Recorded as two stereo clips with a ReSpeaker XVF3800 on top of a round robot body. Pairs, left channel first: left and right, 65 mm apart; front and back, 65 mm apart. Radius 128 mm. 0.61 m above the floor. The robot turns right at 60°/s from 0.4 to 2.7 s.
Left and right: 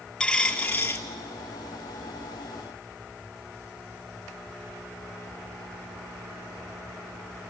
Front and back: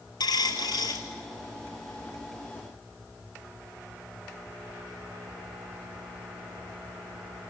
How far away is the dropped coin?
About 0.6 m.